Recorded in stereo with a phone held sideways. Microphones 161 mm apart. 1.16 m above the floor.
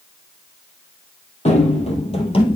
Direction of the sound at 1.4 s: 45° left (ahead or behind).